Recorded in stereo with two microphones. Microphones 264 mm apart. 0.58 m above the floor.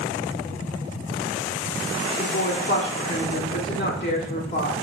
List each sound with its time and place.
2.2 s a woman speaking: 45° left (ahead or behind), 1.8 m